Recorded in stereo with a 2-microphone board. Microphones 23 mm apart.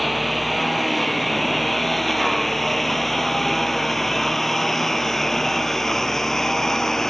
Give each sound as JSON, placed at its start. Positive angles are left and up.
{"t": 0.0, "sound": "a lawn mower", "side_deg": 5}